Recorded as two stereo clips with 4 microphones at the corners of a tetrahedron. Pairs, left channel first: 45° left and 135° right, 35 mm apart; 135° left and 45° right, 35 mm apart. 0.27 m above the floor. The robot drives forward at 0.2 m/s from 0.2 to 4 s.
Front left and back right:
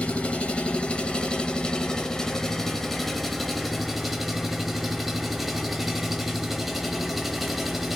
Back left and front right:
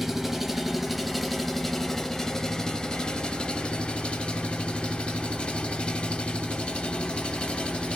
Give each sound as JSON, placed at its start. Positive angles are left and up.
{"t": 0.0, "sound": "an engine running", "azimuth_deg": 35, "distance_m": 0.8}